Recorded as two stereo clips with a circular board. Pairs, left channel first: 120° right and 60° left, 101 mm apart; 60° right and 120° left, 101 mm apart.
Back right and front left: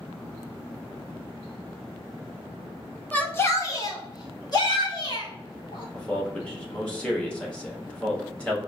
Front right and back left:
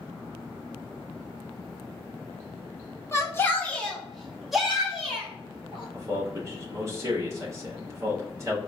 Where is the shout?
60° right, 0.8 m; by 5.8 s 160° right, 1.9 m.